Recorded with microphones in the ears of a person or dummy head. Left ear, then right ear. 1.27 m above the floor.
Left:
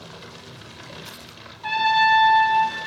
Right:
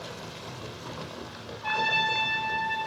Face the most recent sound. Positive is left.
turn(degrees=20)  # may be behind; listen again after turning